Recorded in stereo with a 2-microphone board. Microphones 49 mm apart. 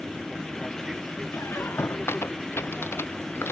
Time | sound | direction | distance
0.0 | an aircraft | 10° right (ahead or behind) | ?
1.3 | a squeak | 55° left (ahead or behind) | ?